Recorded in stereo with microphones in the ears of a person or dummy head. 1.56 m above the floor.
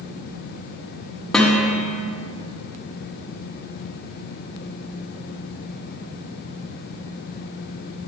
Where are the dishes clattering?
5° left (ahead or behind), 1.3 m.